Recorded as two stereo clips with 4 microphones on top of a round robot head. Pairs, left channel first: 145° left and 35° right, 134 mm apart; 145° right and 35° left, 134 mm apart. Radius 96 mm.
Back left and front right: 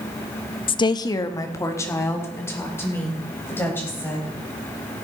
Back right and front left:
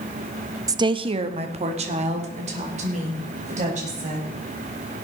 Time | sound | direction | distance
0.7 | a woman speaking | 100° left | 0.6 m